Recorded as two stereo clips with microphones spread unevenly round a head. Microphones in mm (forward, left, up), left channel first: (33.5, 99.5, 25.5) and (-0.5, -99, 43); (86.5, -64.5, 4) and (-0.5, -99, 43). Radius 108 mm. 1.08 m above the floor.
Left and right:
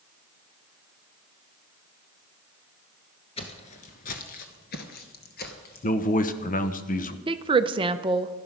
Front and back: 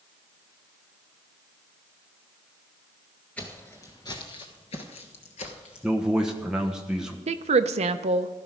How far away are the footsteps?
About 1.2 m.